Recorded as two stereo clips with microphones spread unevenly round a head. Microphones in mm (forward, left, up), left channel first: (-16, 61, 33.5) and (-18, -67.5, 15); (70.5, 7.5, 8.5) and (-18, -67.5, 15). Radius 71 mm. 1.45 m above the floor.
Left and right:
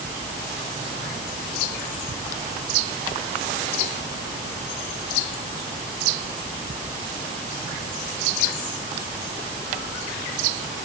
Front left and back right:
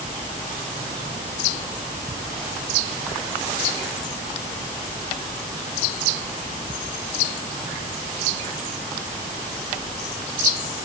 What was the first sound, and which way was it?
Only background noise.